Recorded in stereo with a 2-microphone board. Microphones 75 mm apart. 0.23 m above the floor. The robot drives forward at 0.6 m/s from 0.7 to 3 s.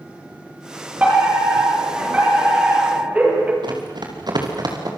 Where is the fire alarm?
20° right (ahead or behind), 9 m.